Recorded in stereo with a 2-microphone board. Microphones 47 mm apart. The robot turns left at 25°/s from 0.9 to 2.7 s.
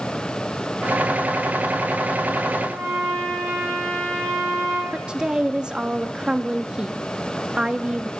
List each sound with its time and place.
2.6 s a trumpet: 60° right (ahead or behind), 9 m; by 4.8 s 55° right (ahead or behind), 9 m
4.9 s a woman speaking: 20° right (ahead or behind), 1.0 m